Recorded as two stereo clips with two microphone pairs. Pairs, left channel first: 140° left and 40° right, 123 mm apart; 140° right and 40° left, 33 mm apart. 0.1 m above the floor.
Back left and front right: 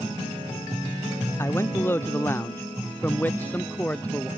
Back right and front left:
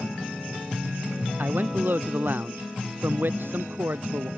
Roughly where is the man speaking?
Left.